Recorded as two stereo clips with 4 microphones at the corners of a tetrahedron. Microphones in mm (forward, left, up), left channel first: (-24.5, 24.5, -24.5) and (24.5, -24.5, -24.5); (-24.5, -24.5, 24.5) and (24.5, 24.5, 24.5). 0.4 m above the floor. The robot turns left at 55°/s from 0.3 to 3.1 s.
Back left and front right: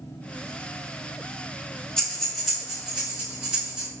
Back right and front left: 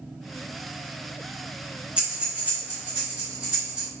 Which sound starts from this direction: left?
Breathing, at 2.0 s.